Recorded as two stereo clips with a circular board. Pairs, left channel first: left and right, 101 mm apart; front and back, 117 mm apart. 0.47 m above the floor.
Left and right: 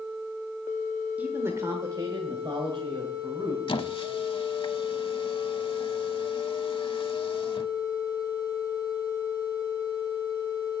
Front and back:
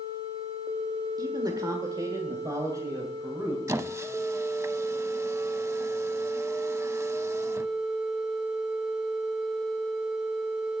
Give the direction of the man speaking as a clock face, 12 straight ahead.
5 o'clock.